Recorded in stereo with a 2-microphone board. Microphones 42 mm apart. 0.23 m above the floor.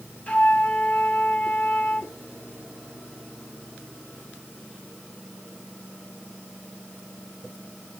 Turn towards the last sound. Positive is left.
turn(degrees=30)  # may be behind; listen again after turning